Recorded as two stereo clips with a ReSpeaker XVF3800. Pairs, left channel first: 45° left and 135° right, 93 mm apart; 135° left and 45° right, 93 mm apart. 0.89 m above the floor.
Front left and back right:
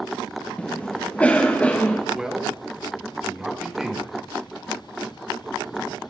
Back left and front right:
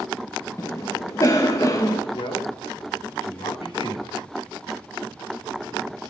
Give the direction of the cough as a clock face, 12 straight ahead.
8 o'clock.